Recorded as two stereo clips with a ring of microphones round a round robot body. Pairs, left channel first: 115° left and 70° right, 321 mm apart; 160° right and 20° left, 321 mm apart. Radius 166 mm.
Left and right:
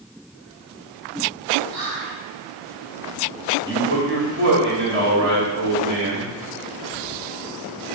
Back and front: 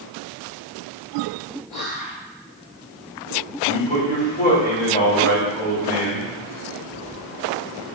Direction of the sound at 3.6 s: 105° right.